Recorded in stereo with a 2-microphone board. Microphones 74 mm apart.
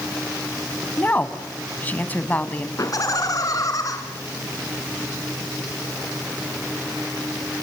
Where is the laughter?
50° left (ahead or behind), 2 m.